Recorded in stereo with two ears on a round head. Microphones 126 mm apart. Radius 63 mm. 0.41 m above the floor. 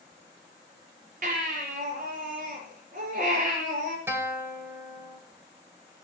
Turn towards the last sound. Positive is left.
turn(degrees=-20)  # may be behind; listen again after turning